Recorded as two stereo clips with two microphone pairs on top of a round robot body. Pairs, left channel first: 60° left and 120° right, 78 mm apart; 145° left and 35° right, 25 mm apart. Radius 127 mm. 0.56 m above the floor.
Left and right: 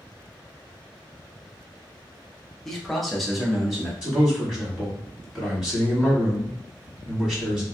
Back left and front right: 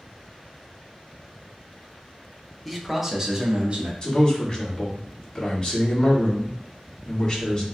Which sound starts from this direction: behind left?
A man speaking, at 2.6 s.